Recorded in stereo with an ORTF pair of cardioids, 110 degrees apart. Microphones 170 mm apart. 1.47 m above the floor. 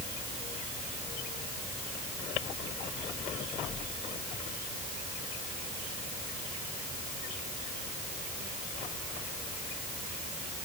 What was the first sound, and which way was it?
Only background noise.